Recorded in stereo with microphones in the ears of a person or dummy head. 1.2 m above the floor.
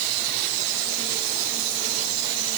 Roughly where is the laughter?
No laughter in this recording.